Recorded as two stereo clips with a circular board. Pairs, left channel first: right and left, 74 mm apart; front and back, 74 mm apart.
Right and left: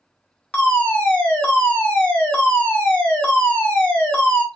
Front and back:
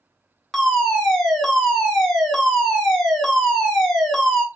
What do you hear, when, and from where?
0.5 s a fire alarm: 75° right, 1.0 m